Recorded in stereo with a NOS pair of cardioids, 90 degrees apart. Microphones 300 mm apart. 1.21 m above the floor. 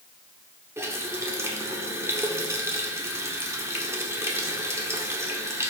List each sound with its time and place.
0.8 s a running tap: 10° right, 1.8 m